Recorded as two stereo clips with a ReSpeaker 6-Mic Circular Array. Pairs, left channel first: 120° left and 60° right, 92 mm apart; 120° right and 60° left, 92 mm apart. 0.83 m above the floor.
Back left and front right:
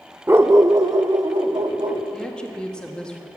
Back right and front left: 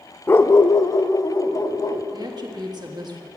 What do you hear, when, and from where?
0.3 s a dog barking: 95° right, 0.5 m; by 2.0 s 85° right, 1.5 m
2.1 s a woman speaking: 40° left, 1.5 m